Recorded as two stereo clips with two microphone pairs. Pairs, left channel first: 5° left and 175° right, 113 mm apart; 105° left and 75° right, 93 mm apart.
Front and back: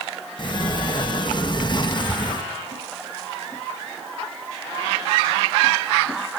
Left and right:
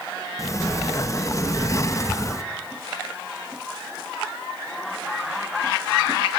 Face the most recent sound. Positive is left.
turn(degrees=50)